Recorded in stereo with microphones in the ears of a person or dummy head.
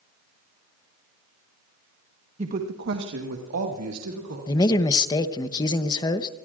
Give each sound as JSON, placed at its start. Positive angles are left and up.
{"t": 2.4, "sound": "a woman speaking", "side_deg": -30, "distance_m": 1.2}
{"t": 4.5, "sound": "a man speaking", "side_deg": 20, "distance_m": 0.9}